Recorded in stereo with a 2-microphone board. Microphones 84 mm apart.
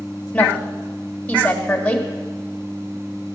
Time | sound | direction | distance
0.3 | a woman speaking | 15° left (ahead or behind) | 1.4 m